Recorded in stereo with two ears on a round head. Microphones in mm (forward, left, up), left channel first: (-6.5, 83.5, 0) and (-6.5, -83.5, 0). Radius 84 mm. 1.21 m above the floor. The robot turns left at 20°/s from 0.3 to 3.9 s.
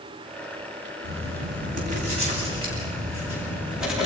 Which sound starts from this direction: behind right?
Writing, at 1.0 s.